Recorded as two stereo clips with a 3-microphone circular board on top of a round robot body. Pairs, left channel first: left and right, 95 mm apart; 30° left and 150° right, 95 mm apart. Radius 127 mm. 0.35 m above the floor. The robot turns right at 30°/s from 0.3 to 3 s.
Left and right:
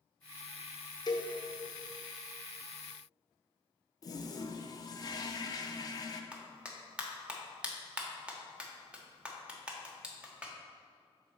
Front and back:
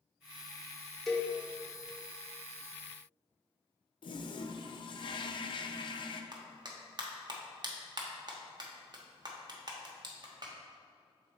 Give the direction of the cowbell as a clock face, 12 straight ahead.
8 o'clock.